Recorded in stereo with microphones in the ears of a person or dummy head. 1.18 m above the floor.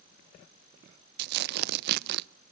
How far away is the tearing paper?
About 0.6 m.